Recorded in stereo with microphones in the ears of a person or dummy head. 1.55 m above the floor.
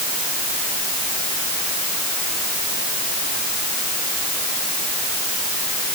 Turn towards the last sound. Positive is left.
No sound to turn to.